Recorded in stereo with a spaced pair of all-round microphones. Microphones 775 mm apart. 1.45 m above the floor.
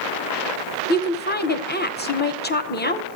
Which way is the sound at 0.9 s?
15° left (ahead or behind).